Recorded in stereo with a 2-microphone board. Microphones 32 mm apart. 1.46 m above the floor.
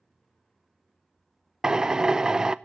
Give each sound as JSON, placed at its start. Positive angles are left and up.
{"t": 1.6, "sound": "a drill", "side_deg": -20, "distance_m": 0.5}